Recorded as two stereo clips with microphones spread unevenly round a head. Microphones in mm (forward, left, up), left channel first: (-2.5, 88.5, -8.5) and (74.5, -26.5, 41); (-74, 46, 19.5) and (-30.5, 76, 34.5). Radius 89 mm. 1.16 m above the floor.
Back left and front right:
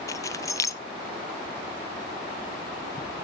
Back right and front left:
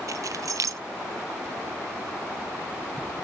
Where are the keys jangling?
55° left, 0.7 m.